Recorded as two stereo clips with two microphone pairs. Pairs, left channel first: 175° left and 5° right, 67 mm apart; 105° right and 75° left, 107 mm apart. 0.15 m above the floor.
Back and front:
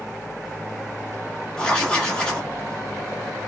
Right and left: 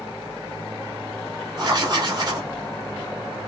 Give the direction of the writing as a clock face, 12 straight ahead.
9 o'clock.